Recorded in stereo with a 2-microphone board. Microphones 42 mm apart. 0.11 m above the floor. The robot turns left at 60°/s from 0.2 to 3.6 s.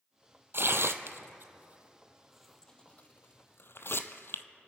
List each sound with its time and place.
0.5 s tearing paper: 65° right (ahead or behind), 0.7 m; by 4.4 s 65° left (ahead or behind), 0.7 m